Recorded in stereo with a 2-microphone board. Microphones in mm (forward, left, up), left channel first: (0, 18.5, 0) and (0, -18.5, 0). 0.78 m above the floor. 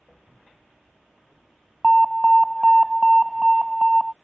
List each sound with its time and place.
1.8 s an alarm: centre (ahead or behind)